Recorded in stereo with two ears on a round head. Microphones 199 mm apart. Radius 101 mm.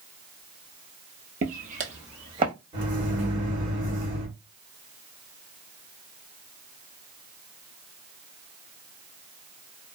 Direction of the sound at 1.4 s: 40° right (ahead or behind).